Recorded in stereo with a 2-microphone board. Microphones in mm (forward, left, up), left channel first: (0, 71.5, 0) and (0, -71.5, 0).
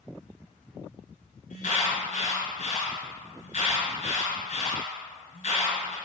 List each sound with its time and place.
1.5 s an alarm: 65° left (ahead or behind), 2 m